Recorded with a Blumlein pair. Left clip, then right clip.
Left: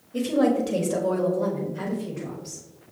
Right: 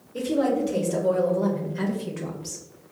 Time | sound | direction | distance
0.1 | a woman speaking | 30° left | 1.7 m